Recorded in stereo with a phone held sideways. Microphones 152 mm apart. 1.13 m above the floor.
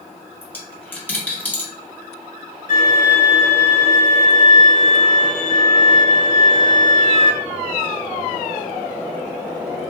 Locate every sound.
0.4 s a dropped coin: 15° left (ahead or behind), 1.2 m
2.7 s a violin: 70° left (ahead or behind), 1.8 m